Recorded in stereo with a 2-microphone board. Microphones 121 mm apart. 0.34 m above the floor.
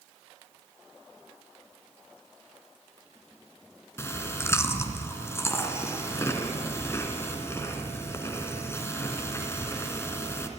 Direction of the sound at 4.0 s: 20° left (ahead or behind).